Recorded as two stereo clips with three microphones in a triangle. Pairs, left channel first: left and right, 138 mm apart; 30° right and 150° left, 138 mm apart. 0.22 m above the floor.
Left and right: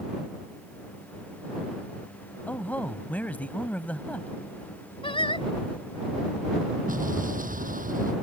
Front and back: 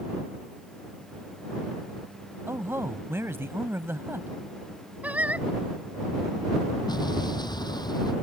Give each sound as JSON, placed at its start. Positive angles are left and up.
{"t": 2.5, "sound": "a man speaking", "azimuth_deg": 140}
{"t": 5.0, "sound": "singing", "azimuth_deg": 75}
{"t": 6.9, "sound": "an explosion", "azimuth_deg": -90}